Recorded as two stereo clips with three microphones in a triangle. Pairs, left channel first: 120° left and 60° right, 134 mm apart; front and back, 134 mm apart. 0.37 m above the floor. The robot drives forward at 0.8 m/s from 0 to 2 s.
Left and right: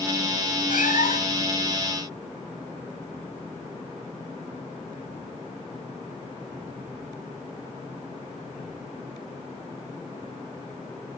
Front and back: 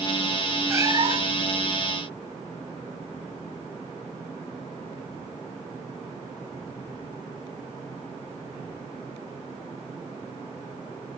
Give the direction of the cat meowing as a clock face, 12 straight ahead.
8 o'clock.